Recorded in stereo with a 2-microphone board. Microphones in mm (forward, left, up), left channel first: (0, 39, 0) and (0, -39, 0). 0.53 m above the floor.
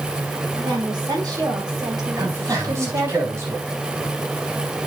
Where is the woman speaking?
55° right (ahead or behind), 5.5 m; by 3.2 s 60° right (ahead or behind), 3.5 m.